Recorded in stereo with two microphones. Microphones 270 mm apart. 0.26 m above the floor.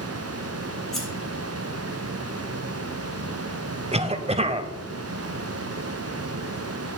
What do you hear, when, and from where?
0.9 s scissors: centre (ahead or behind), 5 m
3.9 s a cough: 20° right (ahead or behind), 0.9 m